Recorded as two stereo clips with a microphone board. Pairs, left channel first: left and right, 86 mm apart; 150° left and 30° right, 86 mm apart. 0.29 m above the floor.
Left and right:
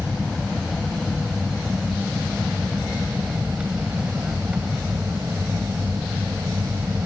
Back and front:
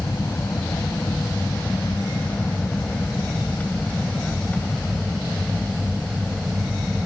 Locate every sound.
0.0 s an aircraft: straight behind; by 7.1 s 120° right